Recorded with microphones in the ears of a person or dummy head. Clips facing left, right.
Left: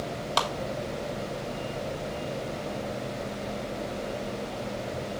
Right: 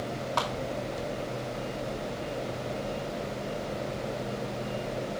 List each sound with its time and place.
0.4 s a clap: 45° left (ahead or behind), 1.9 m